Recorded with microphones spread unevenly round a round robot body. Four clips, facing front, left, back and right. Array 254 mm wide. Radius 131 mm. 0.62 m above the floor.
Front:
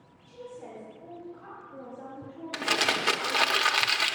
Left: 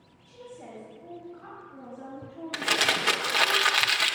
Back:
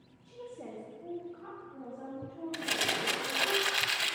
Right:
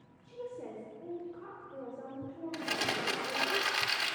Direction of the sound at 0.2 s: 140° right.